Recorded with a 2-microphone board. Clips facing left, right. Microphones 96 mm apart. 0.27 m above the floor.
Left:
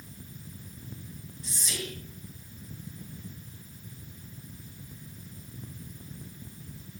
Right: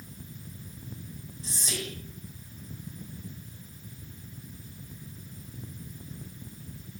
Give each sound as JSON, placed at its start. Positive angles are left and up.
{"t": 1.4, "sound": "whispering", "side_deg": -30, "distance_m": 2.5}